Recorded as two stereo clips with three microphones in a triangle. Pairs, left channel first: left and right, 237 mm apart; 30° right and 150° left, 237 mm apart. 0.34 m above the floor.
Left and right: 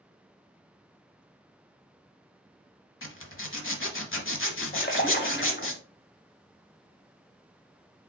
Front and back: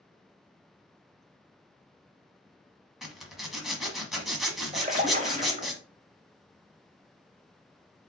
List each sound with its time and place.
3.0 s a zipper: 60° left, 0.9 m
4.7 s a splash: 105° left, 0.8 m